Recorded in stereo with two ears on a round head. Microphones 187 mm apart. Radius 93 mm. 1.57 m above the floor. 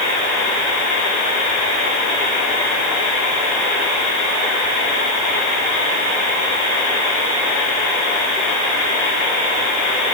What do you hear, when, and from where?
Only background noise.